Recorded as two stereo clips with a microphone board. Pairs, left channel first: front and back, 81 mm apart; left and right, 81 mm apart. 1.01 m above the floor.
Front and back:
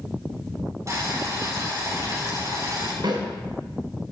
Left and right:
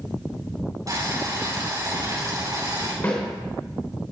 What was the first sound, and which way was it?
Boiling, 130° right.